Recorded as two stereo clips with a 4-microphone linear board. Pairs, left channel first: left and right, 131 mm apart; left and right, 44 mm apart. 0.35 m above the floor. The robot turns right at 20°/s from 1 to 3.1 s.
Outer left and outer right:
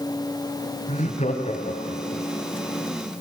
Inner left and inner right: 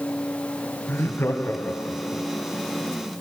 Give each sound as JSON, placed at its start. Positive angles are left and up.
{"t": 0.9, "sound": "laughter", "side_deg": 60, "distance_m": 2.5}